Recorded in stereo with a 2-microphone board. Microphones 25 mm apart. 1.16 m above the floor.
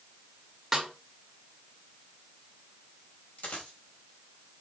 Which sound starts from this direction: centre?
A snare drum, at 0.7 s.